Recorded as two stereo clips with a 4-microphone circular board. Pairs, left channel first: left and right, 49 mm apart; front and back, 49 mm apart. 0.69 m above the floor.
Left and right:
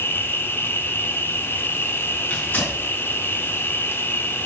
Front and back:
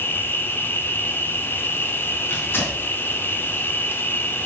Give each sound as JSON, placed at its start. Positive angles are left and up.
{"t": 0.0, "sound": "an insect", "azimuth_deg": 45, "distance_m": 0.7}
{"t": 2.3, "sound": "tearing paper", "azimuth_deg": 45, "distance_m": 4.0}